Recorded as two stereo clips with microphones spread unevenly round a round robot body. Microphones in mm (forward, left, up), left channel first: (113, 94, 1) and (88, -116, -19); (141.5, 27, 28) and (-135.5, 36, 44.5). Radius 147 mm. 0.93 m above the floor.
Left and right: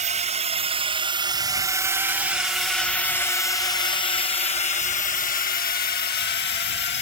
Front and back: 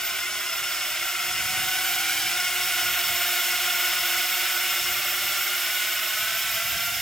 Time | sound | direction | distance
0.0 | a drone | 85° right | ?